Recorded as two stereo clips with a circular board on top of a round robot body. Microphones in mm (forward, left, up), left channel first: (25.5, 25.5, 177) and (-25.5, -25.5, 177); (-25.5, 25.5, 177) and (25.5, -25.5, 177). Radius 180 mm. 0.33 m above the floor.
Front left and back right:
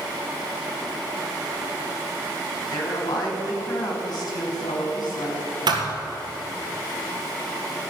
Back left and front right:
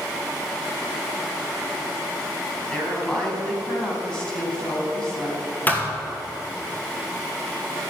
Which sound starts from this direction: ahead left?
A woman speaking, at 2.7 s.